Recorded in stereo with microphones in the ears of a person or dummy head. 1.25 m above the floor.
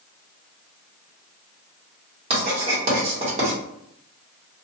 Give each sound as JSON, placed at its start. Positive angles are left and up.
{"t": 2.3, "sound": "writing", "side_deg": -35, "distance_m": 1.4}